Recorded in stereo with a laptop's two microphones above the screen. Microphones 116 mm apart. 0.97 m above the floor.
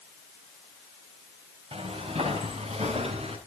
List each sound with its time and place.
1.7 s footsteps: 60° right (ahead or behind), 5 m; by 3.4 s 70° right (ahead or behind), 6.5 m